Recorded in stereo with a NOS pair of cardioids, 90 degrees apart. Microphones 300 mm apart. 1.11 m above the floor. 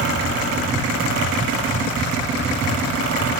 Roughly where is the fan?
Ahead right.